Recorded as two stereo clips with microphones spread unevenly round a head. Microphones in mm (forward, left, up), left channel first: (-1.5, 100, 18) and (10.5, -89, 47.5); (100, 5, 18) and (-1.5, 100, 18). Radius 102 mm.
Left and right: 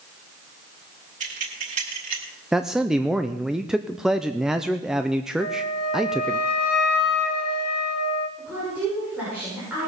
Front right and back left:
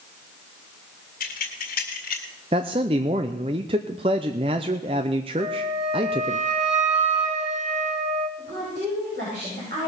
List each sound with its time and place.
1.2 s keys jangling: 35° right, 2.5 m; by 2.2 s 40° right, 3.5 m
2.5 s a man speaking: 165° right, 0.5 m
5.4 s a flute: 105° left, 2 m
8.4 s a woman speaking: 170° right, 6.5 m